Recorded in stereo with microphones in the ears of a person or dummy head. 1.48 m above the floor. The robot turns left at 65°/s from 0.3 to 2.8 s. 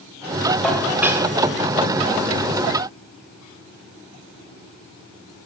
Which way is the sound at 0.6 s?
15° left.